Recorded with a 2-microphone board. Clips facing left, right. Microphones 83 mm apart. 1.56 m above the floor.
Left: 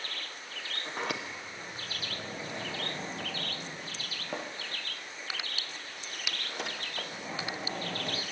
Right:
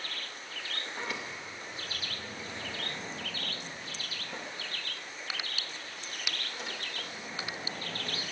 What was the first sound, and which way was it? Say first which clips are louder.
A sliding door: left 4 dB; 70° left (ahead or behind).